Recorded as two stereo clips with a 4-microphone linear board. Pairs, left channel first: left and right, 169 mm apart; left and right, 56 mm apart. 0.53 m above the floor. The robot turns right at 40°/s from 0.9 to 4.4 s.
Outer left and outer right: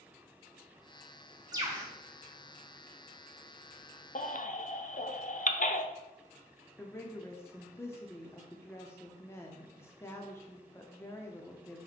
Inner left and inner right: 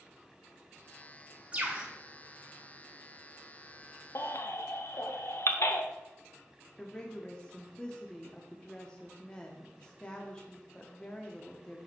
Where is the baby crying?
55° left (ahead or behind), 0.6 m.